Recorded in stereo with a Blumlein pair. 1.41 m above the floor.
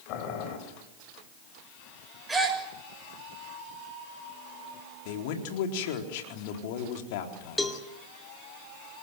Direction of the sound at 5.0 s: 50° left.